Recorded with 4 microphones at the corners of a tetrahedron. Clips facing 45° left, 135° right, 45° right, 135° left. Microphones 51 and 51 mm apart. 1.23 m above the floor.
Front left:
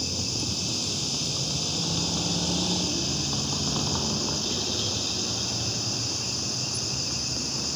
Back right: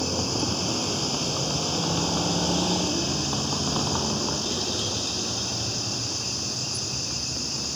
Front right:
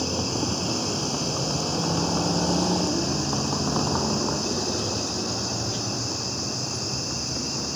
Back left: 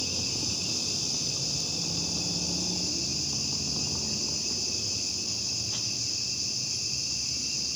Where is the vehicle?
85° right; by 7.8 s 40° right.